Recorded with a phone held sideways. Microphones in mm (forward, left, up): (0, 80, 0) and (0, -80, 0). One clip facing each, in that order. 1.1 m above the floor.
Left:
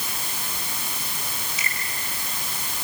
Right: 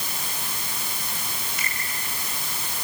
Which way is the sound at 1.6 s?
55° right (ahead or behind).